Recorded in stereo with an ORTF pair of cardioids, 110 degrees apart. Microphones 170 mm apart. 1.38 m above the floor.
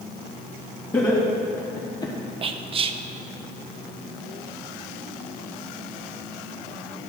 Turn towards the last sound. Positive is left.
turn(degrees=-35)